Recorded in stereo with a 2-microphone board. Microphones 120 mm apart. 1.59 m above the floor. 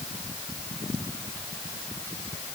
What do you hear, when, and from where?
Only background noise.